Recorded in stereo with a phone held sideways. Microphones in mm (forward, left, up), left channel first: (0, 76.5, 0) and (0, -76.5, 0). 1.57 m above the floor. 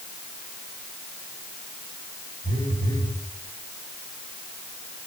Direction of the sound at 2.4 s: 70° left (ahead or behind).